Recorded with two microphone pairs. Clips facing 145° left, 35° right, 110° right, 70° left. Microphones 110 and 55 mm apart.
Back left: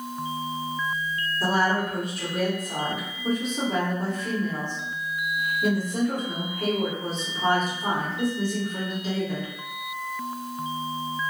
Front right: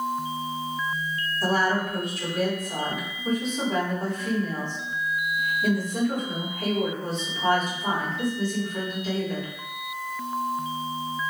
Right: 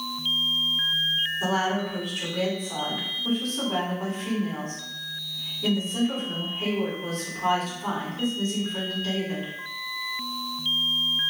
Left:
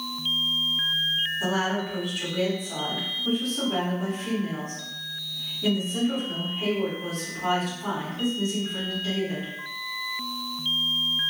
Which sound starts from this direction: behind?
A woman speaking, at 1.4 s.